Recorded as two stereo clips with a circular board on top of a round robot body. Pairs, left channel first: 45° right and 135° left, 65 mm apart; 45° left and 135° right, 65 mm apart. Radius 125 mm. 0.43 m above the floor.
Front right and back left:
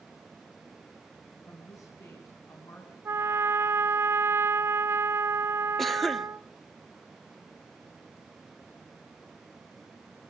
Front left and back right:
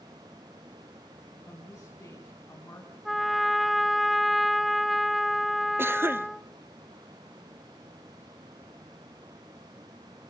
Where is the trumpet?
135° left, 0.8 m.